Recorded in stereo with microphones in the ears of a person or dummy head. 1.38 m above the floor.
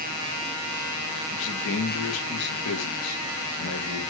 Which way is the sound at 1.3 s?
60° left (ahead or behind).